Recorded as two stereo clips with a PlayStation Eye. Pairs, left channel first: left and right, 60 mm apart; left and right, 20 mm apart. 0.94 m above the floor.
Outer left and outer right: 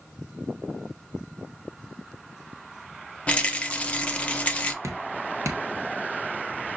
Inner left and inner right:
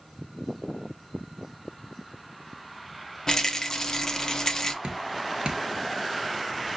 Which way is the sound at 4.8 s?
55° right (ahead or behind).